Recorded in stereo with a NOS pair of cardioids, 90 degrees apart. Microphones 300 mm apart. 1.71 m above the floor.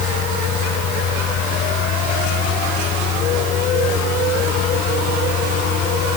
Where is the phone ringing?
No phone ringing in this recording.